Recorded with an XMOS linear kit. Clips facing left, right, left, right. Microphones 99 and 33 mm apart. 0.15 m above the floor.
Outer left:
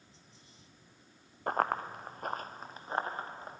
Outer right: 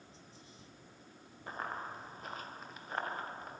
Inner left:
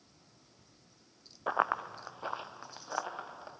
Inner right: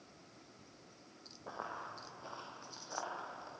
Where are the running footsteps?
65° left (ahead or behind), 0.9 m; by 3.5 s 25° left (ahead or behind), 3 m.